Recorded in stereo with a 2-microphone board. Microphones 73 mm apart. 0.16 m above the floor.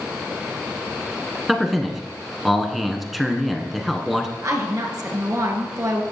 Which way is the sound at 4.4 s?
45° right (ahead or behind).